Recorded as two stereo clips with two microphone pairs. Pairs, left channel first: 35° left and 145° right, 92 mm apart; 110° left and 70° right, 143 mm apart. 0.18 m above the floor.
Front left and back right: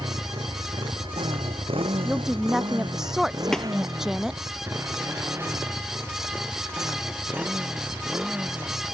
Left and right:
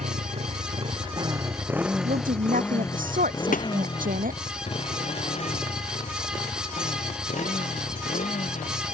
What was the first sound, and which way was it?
A motorcycle, 100° right.